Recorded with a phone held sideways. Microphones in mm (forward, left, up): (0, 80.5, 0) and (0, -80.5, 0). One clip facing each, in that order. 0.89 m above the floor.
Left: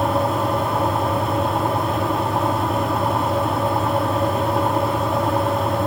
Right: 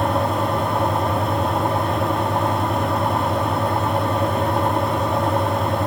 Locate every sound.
0.0 s a fan: centre (ahead or behind), 2.5 m